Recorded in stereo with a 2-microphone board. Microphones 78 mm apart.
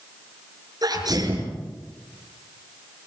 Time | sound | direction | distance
0.8 | a sneeze | 55° right (ahead or behind) | 7 m